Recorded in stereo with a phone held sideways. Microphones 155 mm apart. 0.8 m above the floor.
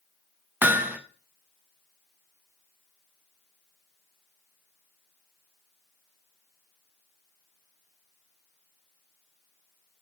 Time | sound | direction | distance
0.6 | hammering | 10° right (ahead or behind) | 0.7 m